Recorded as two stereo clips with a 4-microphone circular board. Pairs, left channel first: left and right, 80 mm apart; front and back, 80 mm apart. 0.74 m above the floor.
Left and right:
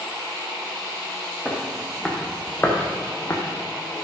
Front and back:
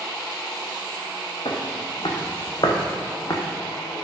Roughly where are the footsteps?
Ahead.